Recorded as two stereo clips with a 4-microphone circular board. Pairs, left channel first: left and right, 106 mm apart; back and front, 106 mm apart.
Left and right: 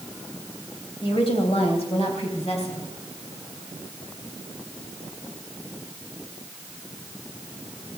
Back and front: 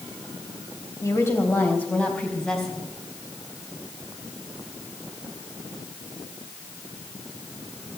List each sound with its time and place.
1.0 s a woman speaking: 125° left, 3 m; by 2.9 s 95° left, 4.5 m